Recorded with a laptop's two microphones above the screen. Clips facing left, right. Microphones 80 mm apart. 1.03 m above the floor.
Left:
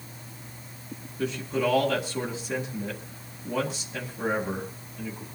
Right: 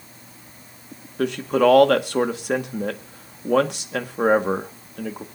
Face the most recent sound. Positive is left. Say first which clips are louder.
# right 9 dB
turn(degrees=-70)  # may be behind; listen again after turning